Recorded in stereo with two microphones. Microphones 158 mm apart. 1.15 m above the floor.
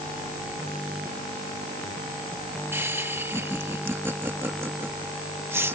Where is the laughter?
15° right (ahead or behind).